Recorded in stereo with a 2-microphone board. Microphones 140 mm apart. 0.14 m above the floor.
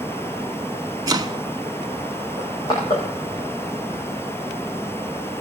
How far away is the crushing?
About 8.5 m.